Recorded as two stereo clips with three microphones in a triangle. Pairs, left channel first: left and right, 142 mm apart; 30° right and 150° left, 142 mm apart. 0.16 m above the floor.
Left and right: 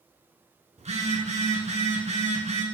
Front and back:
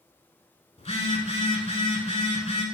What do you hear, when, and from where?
0.8 s a phone buzzing: 65° right, 0.7 m